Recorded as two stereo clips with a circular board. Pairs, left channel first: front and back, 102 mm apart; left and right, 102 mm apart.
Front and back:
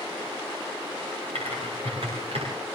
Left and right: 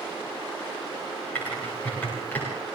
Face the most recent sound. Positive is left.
turn(degrees=165)